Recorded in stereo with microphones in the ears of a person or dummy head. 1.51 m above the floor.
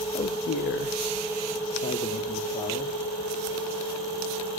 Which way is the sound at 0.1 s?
30° left (ahead or behind).